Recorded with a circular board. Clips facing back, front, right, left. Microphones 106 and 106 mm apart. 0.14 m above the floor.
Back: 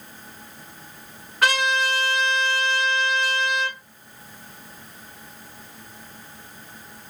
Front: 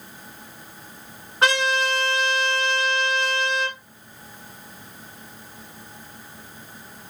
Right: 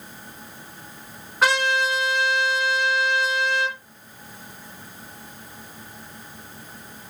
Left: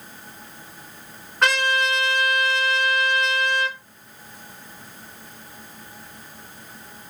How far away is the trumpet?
About 1.0 m.